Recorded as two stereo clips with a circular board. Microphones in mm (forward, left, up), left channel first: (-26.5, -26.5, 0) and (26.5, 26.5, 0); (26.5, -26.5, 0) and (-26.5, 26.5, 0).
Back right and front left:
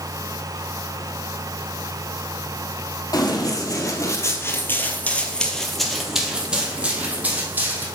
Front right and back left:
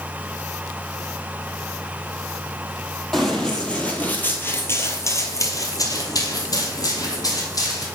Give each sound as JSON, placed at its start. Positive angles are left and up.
{"t": 3.1, "sound": "running footsteps", "azimuth_deg": -125, "distance_m": 2.0}